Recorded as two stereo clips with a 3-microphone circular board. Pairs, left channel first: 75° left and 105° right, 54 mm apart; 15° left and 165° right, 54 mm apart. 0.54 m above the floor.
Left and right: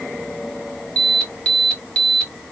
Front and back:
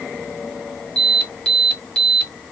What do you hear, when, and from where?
1.0 s an alarm: 50° left, 1.9 m